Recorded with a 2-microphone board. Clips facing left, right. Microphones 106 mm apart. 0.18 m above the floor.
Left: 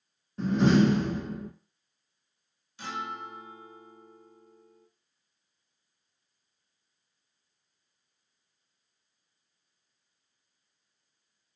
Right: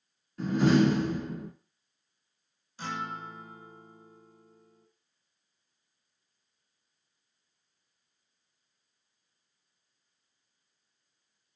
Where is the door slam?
30° left (ahead or behind), 1.0 m.